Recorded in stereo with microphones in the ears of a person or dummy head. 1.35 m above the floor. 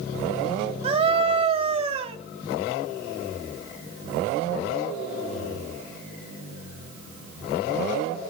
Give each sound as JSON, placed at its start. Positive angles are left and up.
{"t": 0.8, "sound": "a scream", "side_deg": -30, "distance_m": 2.5}